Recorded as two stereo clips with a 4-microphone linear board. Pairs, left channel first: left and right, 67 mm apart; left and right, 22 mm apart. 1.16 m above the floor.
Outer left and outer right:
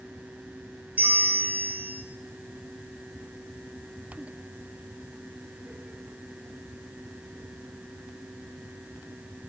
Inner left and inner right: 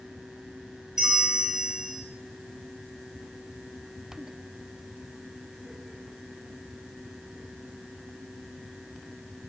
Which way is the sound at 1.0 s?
20° right (ahead or behind).